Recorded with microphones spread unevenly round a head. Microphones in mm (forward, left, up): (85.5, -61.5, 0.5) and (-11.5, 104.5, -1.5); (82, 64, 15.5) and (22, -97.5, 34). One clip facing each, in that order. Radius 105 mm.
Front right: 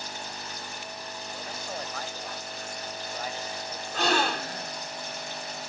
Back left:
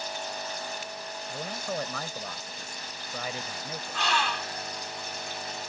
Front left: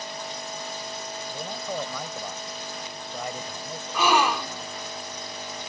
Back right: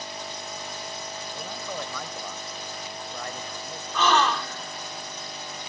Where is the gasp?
10° right.